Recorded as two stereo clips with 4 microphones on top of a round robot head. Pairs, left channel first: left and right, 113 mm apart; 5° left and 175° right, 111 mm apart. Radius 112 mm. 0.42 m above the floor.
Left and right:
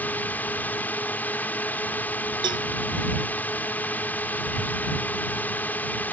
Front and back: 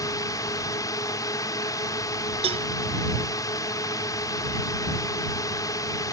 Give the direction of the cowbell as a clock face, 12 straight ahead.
5 o'clock.